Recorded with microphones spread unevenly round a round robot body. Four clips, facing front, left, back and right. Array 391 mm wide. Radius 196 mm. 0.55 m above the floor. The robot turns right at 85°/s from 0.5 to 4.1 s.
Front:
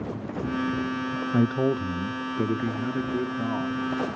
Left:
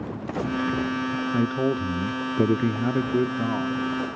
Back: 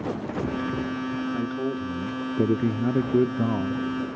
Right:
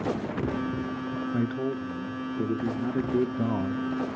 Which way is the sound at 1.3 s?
10° left.